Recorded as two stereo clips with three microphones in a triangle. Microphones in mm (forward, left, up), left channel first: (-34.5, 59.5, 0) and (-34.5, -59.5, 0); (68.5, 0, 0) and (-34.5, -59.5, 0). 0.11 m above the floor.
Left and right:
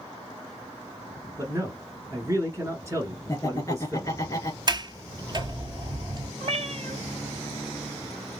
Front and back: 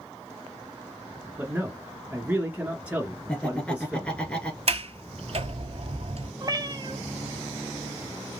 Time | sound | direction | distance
1.4 | a man speaking | 90° right | 1.2 m
3.3 | laughter | 100° left | 1.7 m
4.7 | a sliding door | 135° right | 0.5 m
6.4 | a cat meowing | 100° right | 0.8 m